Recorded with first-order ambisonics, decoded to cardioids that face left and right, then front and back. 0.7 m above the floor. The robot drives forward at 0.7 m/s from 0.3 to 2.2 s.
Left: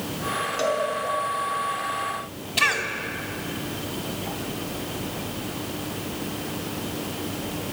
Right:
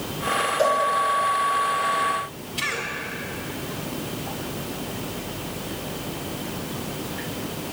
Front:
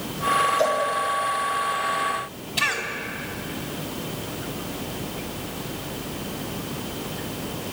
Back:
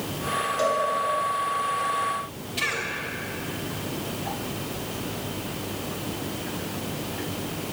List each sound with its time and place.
0.6 s a cowbell: 95° left, 4 m
2.6 s a cough: 75° left, 3 m